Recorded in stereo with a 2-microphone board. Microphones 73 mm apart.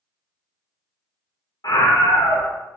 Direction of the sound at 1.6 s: 60° left (ahead or behind).